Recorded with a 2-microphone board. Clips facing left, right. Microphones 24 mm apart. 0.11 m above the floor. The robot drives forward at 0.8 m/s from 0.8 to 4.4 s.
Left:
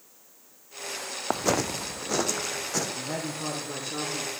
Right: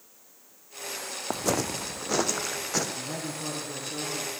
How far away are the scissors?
I don't hear scissors.